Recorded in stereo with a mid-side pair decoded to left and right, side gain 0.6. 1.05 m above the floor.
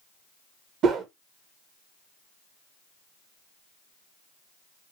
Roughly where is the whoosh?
Ahead right.